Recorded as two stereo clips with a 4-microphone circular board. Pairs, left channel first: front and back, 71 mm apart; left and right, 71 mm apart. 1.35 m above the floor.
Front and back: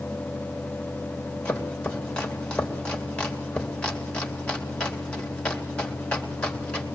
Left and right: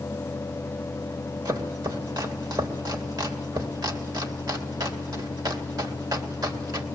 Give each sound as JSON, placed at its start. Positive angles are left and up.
{"t": 1.4, "sound": "chopping", "azimuth_deg": -75, "distance_m": 3.5}